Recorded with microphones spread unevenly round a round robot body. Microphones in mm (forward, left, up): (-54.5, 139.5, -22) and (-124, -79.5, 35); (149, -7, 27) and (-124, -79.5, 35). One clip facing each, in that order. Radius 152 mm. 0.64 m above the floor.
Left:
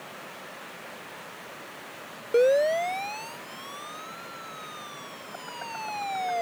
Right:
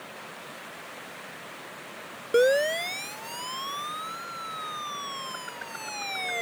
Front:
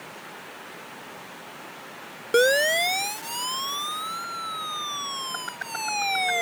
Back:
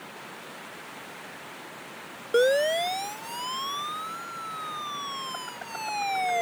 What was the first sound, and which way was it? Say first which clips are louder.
A siren: left 1 dB, front 1 dB; 30° right.